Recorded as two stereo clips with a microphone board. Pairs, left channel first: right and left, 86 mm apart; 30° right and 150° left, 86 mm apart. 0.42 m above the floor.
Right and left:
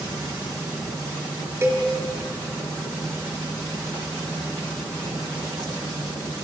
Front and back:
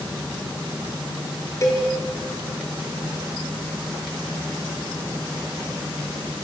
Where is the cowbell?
30° left, 4 m.